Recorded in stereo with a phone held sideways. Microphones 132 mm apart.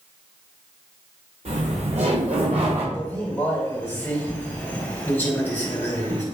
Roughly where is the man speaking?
Centre.